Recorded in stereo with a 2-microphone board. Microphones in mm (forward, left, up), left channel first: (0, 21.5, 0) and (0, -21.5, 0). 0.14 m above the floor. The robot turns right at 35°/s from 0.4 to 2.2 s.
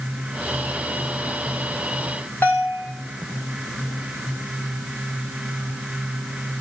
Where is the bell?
50° left (ahead or behind), 3 m.